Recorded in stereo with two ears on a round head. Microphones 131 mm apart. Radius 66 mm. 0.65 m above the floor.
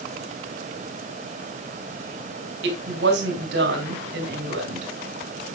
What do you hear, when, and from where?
2.6 s a woman speaking: 85° right, 4 m